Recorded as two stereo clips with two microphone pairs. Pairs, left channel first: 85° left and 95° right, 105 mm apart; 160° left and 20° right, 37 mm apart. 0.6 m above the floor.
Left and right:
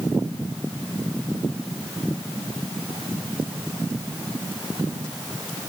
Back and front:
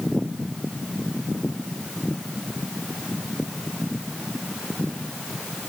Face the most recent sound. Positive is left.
No sound to turn to.